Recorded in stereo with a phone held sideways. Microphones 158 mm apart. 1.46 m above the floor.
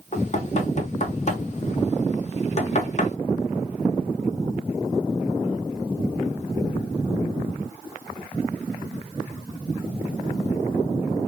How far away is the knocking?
About 1.2 m.